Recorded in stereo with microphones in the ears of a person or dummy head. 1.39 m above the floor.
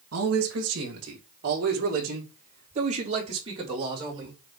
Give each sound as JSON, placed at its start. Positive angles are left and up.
{"t": 0.1, "sound": "a man speaking", "side_deg": -70, "distance_m": 2.0}